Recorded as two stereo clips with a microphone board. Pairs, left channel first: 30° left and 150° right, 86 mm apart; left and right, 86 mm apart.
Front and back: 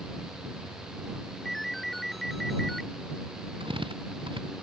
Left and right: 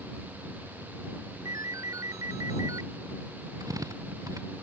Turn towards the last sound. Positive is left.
turn(degrees=-135)